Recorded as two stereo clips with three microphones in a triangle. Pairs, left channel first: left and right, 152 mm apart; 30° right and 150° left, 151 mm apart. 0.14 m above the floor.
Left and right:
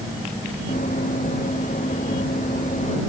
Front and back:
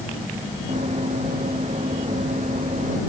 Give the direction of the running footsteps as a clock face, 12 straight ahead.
8 o'clock.